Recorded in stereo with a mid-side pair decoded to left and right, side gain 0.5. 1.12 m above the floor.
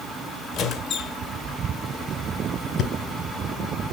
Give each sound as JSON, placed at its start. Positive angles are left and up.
{"t": 0.5, "sound": "a squeak", "azimuth_deg": 70, "distance_m": 1.9}
{"t": 2.8, "sound": "breathing", "azimuth_deg": 65, "distance_m": 3.5}